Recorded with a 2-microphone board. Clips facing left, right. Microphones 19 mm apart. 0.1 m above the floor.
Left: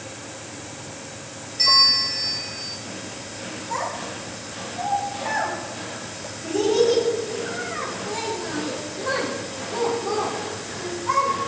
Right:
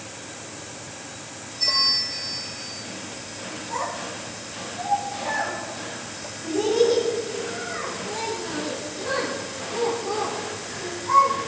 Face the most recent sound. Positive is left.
turn(degrees=25)  # may be behind; listen again after turning